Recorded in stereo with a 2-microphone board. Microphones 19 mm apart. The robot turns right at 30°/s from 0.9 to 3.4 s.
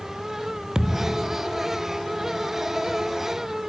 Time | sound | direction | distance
0.8 | a thud | 35° right (ahead or behind) | ?